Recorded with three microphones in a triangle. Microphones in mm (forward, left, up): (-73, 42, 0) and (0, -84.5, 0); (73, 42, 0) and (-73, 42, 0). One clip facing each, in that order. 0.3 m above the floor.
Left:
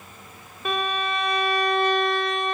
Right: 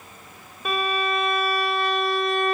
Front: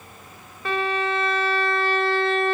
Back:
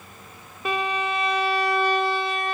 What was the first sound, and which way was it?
A violin, 145° right.